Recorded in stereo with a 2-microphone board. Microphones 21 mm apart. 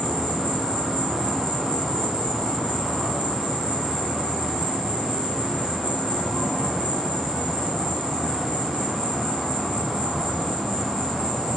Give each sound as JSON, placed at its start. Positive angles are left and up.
{"t": 0.0, "sound": "an insect", "side_deg": -35, "distance_m": 1.4}